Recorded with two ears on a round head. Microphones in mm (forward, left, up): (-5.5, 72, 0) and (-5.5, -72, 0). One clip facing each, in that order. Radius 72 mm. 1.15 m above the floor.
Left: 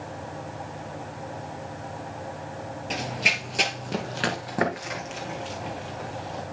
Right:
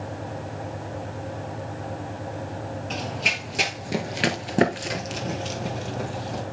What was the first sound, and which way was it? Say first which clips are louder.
Running footsteps: left 3 dB; 15° left (ahead or behind).